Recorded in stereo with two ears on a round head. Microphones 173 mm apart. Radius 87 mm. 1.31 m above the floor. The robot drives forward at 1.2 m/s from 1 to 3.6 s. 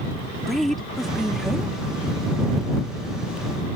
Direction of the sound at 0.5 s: Centre (ahead or behind).